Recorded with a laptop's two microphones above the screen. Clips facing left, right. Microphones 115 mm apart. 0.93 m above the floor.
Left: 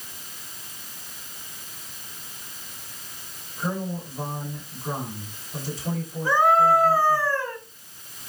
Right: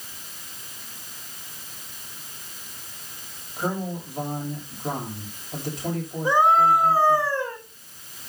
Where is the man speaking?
70° right (ahead or behind), 6 m.